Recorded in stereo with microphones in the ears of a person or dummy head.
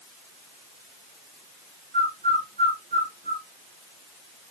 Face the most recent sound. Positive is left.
turn(degrees=-40)  # may be behind; listen again after turning